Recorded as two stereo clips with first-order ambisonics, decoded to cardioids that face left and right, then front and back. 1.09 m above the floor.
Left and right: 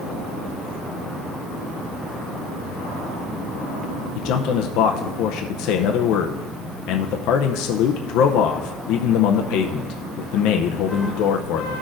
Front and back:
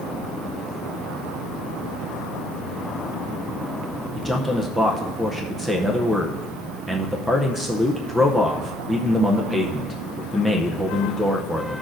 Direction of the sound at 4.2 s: 95° left.